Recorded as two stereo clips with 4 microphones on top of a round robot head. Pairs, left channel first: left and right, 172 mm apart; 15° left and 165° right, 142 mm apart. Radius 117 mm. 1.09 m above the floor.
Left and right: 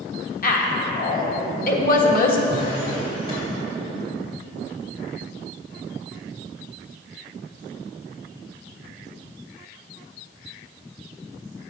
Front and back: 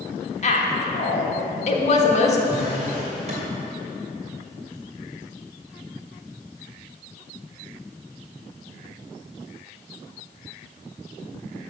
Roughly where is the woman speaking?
Ahead left.